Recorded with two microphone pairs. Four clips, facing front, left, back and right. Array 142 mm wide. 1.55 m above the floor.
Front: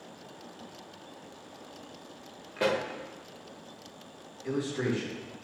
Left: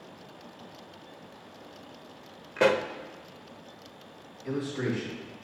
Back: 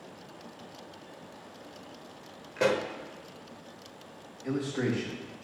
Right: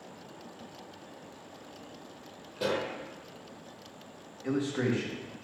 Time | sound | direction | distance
2.6 | a pop | 100° left | 0.9 m
4.4 | a man speaking | 115° right | 3 m